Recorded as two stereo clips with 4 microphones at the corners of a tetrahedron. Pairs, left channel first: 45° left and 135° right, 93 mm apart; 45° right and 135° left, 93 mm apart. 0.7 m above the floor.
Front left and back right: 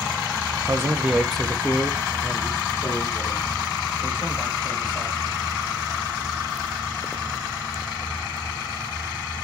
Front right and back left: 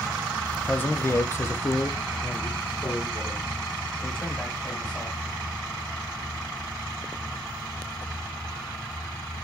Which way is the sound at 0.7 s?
105° right.